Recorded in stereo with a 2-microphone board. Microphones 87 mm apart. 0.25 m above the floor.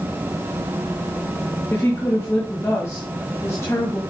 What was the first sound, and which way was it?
A woman speaking, 35° left (ahead or behind).